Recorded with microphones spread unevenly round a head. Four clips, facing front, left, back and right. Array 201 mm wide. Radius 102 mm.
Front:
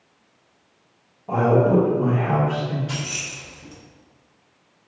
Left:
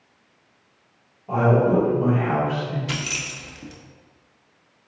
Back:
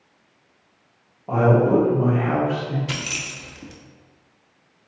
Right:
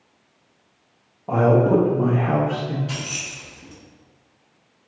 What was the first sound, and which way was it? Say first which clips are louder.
A man speaking: right 2 dB, even; 120° right.